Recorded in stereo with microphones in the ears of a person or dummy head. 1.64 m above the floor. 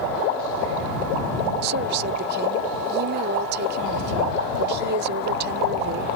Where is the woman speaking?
55° right (ahead or behind).